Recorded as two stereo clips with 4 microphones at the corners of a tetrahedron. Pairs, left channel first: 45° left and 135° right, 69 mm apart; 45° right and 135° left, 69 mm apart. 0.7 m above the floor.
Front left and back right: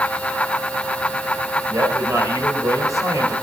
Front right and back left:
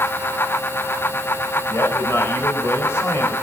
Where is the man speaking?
100° right, 4 m.